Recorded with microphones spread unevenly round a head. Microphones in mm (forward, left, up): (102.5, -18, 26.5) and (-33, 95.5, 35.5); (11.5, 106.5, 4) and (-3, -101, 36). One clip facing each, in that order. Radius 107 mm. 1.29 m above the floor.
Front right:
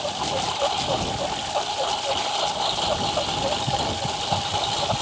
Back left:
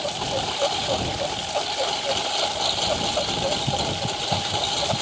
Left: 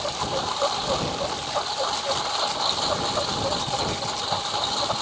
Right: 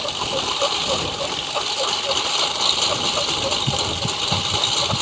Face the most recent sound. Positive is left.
turn(degrees=-145)